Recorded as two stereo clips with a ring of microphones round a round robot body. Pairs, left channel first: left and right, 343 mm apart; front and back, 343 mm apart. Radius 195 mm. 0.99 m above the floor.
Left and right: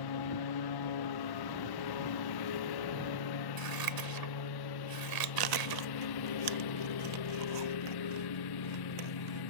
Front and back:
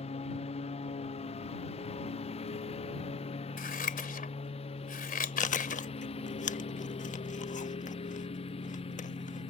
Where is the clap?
I don't hear a clap.